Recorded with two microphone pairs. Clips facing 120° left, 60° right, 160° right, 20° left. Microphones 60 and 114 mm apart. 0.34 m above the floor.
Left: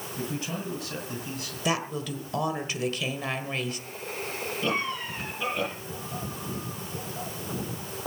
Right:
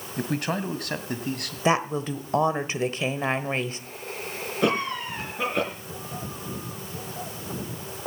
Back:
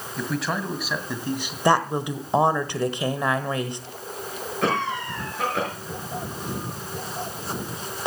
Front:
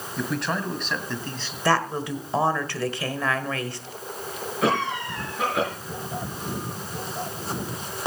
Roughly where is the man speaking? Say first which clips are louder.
Right 7 dB, even; right.